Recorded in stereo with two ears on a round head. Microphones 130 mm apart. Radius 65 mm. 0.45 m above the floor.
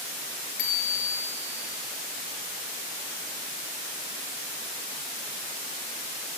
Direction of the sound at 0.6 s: 85° left.